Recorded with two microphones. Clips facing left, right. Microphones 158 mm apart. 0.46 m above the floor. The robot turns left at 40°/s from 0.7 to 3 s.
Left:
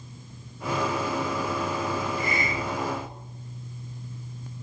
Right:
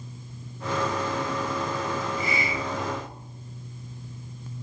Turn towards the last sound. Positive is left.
turn(degrees=25)